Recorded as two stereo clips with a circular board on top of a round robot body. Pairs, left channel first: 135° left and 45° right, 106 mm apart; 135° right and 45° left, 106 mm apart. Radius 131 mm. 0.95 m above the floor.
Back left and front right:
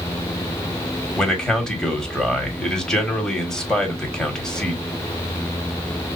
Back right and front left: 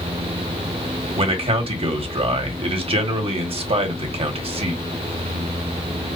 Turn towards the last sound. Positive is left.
turn(degrees=50)